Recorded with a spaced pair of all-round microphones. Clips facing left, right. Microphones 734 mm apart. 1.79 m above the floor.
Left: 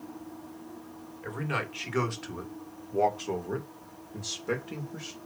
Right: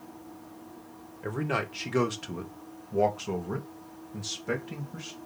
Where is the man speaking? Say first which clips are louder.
Right 4 dB; 70° right (ahead or behind), 1.5 m; by 5.2 s 15° right (ahead or behind), 2 m.